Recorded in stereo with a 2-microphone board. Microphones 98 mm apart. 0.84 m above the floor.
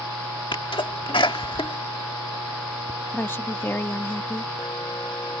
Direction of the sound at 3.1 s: 25° left (ahead or behind).